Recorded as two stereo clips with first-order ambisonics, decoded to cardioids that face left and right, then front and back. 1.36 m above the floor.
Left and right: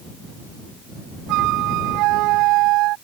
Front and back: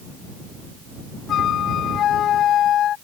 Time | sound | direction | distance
1.3 | a flute | 55° right | ?